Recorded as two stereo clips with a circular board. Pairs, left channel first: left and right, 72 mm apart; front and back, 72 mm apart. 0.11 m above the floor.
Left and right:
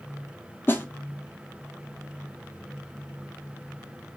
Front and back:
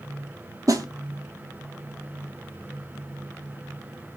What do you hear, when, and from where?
0.7 s a snare drum: 145° left, 0.6 m